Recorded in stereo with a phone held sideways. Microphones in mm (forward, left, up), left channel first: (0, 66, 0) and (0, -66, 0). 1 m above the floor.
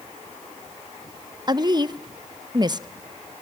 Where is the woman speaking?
30° right (ahead or behind), 0.8 m.